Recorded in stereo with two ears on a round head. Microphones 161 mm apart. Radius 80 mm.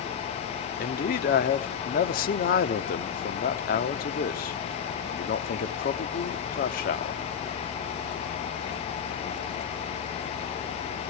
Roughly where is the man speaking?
Left.